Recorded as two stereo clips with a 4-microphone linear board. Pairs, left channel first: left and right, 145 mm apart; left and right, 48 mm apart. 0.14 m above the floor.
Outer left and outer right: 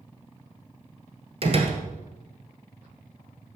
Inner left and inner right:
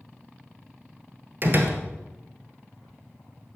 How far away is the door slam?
About 1.8 m.